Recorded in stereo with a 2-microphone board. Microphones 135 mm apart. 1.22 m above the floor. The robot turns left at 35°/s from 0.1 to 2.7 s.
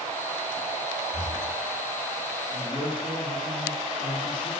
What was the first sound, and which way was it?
Breathing, 45° left (ahead or behind).